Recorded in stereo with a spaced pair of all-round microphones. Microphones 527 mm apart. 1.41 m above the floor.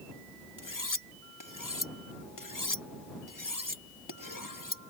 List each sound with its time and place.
0.6 s cutlery clinking: 40° left (ahead or behind)